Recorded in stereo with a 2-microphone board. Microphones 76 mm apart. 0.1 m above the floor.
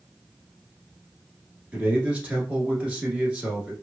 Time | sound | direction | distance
1.7 | a man speaking | 15° right (ahead or behind) | 1.2 m